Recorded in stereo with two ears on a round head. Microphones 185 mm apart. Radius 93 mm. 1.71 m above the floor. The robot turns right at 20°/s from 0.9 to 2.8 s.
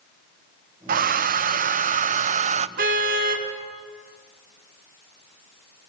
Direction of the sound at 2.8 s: 45° right (ahead or behind).